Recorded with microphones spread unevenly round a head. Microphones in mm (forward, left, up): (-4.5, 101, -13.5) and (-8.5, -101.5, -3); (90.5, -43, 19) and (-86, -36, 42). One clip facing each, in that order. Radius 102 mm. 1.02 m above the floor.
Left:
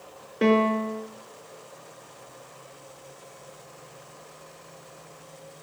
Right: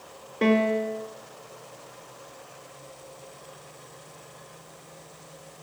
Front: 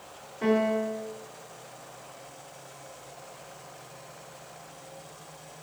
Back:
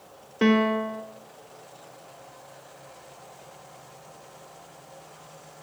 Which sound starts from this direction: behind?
A piano, at 0.4 s.